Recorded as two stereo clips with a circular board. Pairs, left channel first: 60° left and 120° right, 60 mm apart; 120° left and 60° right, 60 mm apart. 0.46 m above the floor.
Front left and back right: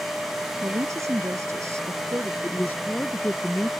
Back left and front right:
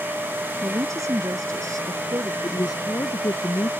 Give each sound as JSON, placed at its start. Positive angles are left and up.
{"t": 0.6, "sound": "a woman speaking", "azimuth_deg": -90}
{"t": 2.4, "sound": "a woman speaking", "azimuth_deg": 120}